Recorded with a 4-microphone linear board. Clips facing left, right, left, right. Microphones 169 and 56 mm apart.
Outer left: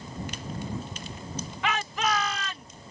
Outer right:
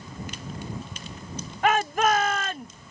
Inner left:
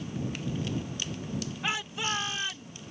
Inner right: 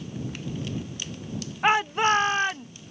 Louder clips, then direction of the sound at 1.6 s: Outer right 7 dB, inner right 13 dB; 50° right (ahead or behind).